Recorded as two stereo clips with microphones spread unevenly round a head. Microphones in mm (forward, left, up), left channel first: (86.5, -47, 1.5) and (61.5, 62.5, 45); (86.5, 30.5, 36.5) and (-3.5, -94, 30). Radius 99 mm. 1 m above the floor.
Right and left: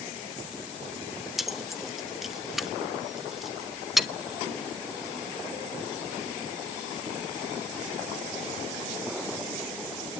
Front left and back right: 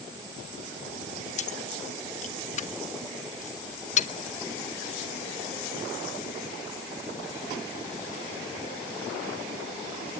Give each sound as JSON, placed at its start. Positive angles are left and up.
{"t": 1.4, "sound": "keys jangling", "azimuth_deg": 10, "distance_m": 1.1}